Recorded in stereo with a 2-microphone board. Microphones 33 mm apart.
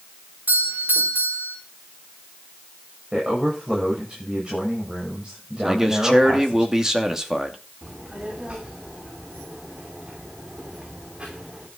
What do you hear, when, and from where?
0.5 s a doorbell: 75° right (ahead or behind), 5 m
3.1 s a man speaking: 20° right (ahead or behind), 7 m
5.7 s a man speaking: 15° right (ahead or behind), 2.5 m
7.8 s a child speaking: 35° right (ahead or behind), 3 m